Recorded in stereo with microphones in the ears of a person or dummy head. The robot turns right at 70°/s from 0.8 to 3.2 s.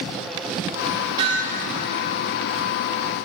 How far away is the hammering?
About 6 m.